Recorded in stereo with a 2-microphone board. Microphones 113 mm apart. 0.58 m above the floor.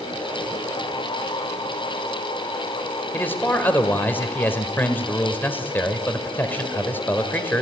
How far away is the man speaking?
About 2 m.